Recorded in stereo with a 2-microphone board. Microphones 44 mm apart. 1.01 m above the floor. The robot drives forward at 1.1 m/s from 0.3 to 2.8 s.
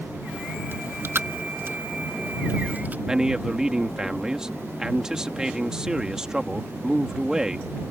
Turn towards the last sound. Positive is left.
turn(degrees=-15)  # may be behind; listen again after turning